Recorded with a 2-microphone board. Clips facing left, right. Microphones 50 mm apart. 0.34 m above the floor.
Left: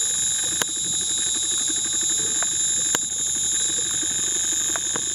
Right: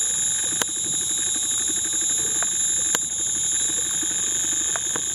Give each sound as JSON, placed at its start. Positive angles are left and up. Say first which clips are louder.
{"t": 0.0, "sound": "an insect", "louder": "left 1 dB", "side_deg": -30}